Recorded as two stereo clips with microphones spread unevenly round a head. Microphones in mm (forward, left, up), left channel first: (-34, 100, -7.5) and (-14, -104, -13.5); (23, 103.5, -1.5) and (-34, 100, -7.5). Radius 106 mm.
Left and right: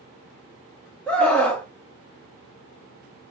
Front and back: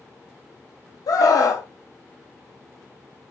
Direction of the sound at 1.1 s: 10° left.